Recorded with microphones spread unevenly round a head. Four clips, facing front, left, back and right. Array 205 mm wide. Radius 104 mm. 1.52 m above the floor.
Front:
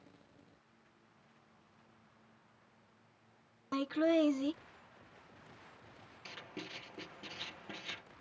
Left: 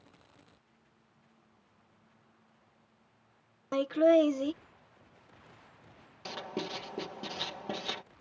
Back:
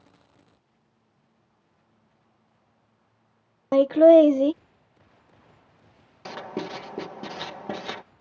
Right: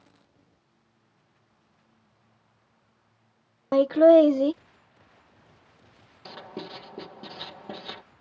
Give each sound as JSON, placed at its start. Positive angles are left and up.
{"t": 3.7, "sound": "laughter", "azimuth_deg": -150}
{"t": 6.2, "sound": "writing", "azimuth_deg": 175}